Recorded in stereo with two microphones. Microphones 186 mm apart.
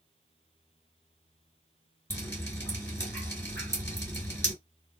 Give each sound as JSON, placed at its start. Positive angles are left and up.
{"t": 2.1, "sound": "dripping", "side_deg": 15, "distance_m": 2.5}